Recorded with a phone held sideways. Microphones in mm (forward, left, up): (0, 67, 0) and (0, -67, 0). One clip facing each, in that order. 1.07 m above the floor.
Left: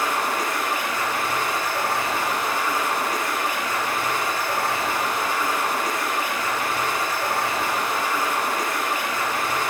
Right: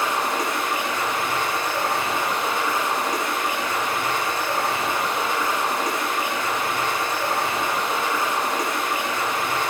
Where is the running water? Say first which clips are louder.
Right 1 dB; 20° right (ahead or behind), 8.5 m.